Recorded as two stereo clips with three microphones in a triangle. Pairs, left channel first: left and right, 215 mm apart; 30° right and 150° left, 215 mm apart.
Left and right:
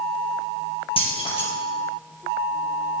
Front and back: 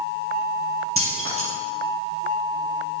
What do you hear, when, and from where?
1.0 s keys jangling: 155° left, 3.5 m